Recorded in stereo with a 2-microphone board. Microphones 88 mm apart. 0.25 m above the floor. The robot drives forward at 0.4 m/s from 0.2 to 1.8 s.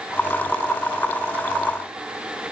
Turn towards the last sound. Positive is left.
No sound to turn to.